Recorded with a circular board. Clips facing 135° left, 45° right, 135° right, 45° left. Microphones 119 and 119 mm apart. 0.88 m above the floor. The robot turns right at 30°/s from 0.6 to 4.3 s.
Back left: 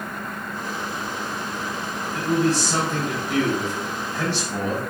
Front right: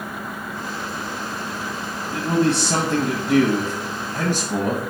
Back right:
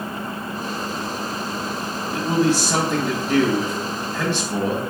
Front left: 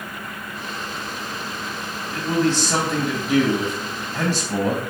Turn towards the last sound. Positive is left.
turn(degrees=-10)